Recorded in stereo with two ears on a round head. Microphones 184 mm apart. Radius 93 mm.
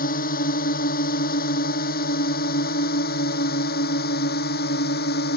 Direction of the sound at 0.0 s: 45° left (ahead or behind).